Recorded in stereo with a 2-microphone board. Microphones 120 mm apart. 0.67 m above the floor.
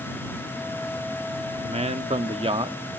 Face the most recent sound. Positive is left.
turn(degrees=-40)  # may be behind; listen again after turning